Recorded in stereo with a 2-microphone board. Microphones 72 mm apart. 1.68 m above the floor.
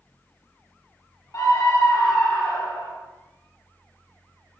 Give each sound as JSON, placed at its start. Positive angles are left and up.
{"t": 1.3, "sound": "a scream", "side_deg": 50, "distance_m": 0.7}